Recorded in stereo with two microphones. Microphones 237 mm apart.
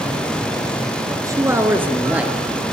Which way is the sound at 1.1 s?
15° right (ahead or behind).